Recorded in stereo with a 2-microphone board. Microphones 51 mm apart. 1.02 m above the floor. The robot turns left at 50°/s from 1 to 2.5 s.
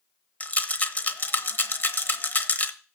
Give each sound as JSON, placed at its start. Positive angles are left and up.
{"t": 0.4, "sound": "a rattle", "side_deg": 30, "distance_m": 0.9}